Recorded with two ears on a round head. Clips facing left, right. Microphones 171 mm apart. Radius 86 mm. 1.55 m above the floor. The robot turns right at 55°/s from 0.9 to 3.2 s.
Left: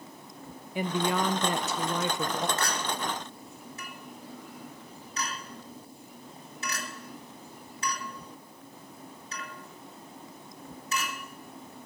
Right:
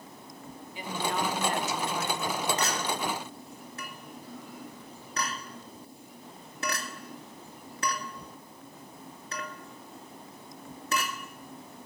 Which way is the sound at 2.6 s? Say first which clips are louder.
Right 1 dB; 15° right (ahead or behind).